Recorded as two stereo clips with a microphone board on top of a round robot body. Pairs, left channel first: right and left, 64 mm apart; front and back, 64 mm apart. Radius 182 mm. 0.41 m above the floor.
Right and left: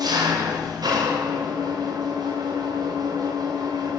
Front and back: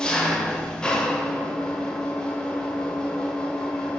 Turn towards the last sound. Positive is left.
turn(degrees=75)